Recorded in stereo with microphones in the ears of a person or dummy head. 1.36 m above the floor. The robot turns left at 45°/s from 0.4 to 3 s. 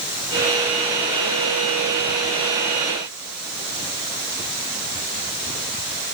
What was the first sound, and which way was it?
Only background noise.